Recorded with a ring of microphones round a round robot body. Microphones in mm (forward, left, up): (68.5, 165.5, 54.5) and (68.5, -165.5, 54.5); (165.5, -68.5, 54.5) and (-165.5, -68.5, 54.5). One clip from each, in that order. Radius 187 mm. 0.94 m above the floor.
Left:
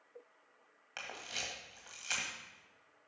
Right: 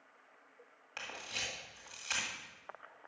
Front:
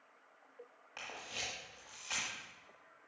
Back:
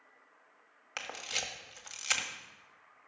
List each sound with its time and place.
1.0 s a camera shutter: 170° left, 1.7 m